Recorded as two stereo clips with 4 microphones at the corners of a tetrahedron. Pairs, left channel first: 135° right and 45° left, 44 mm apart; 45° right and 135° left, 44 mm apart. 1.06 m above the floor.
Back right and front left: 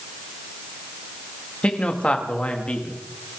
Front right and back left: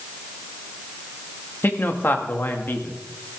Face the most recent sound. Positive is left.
turn(degrees=-75)